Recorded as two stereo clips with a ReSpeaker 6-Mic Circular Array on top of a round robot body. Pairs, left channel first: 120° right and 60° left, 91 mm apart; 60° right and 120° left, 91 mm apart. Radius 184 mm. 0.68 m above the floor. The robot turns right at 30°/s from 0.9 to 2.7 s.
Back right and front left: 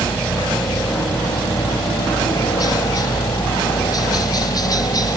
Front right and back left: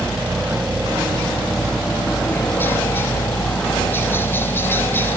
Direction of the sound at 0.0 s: 170° right.